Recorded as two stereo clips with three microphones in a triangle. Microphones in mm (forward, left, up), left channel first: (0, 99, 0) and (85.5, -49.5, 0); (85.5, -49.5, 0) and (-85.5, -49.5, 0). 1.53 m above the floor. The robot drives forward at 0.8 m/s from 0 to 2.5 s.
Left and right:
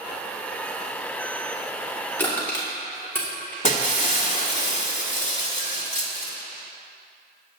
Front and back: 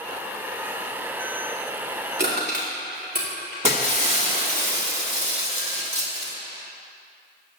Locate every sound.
2.2 s crushing: 160° right, 3 m
3.6 s breaking glass: 145° left, 1.7 m